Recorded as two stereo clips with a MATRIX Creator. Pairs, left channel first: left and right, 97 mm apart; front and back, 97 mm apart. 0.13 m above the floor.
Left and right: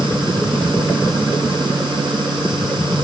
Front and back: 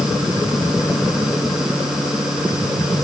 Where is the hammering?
I don't hear hammering.